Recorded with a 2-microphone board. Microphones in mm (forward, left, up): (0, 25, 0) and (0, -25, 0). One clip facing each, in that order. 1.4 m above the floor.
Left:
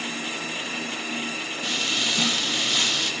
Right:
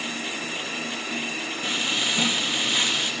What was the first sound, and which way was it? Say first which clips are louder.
Frying: even; 20° right (ahead or behind).